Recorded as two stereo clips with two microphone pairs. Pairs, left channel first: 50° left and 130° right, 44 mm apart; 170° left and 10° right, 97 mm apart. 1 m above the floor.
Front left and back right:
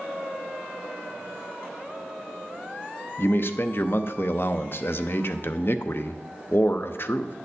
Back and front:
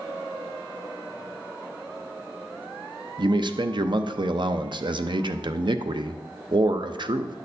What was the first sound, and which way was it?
A man speaking, 25° left.